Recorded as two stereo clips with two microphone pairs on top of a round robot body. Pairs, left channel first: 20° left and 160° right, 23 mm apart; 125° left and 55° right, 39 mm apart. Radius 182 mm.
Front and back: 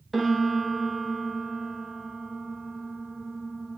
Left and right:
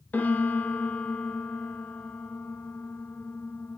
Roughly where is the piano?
Behind left.